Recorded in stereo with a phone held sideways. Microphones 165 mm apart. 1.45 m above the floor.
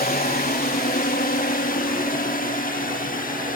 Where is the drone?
60° left (ahead or behind); by 3.6 s 55° left (ahead or behind).